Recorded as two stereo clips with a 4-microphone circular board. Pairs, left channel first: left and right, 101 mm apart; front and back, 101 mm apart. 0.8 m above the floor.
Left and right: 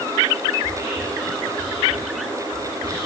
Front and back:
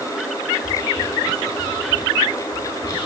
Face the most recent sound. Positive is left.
turn(degrees=-40)